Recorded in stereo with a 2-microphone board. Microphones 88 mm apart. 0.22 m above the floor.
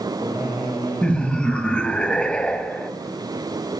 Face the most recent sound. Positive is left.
turn(degrees=10)  # may be behind; listen again after turning